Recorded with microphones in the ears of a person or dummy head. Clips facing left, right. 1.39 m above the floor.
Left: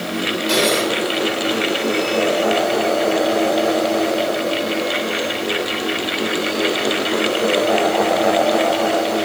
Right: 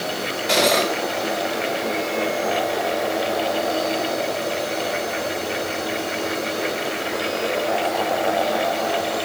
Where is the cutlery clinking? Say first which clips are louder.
Even; 5° left (ahead or behind), 3.5 m.